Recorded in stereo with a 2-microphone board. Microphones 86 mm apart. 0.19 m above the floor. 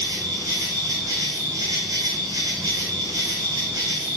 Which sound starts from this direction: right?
An insect, at 0.0 s.